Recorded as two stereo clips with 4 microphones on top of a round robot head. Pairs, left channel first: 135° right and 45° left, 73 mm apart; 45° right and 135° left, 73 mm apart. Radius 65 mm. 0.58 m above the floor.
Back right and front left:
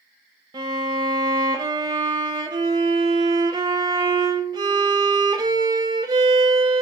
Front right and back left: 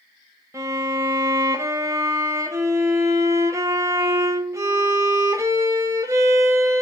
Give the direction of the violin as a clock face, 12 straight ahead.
9 o'clock.